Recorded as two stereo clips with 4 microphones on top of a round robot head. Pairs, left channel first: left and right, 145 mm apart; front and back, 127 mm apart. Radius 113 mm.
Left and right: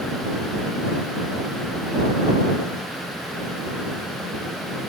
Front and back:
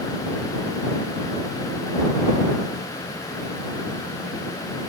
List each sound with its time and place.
Only background noise.